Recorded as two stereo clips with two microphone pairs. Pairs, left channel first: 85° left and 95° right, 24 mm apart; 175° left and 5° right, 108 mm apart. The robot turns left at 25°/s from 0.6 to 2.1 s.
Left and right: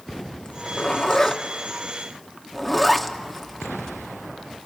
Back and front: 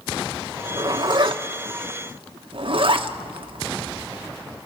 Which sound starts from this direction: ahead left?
A zipper, at 0.4 s.